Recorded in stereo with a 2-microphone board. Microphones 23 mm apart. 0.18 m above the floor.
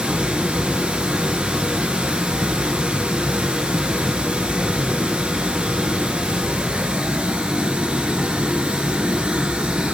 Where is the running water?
45° right (ahead or behind), 2.5 m.